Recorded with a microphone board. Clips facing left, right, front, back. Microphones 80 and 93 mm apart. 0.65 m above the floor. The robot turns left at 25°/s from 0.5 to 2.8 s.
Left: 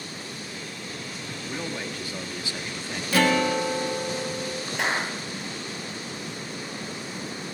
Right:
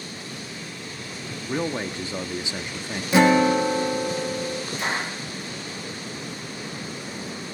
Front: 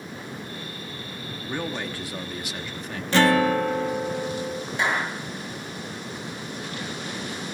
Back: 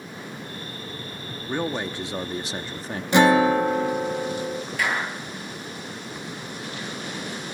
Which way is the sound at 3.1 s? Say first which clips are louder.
Right 5 dB, back 3 dB; 130° right.